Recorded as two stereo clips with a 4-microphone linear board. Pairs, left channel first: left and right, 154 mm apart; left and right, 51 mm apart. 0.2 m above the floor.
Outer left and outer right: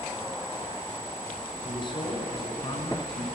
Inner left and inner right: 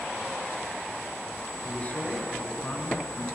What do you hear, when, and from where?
1.6 s a man speaking: 30° left (ahead or behind), 2.5 m